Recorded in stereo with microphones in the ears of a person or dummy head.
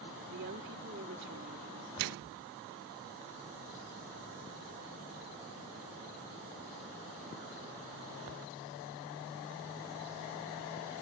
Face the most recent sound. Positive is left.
turn(degrees=-60)  # may be behind; listen again after turning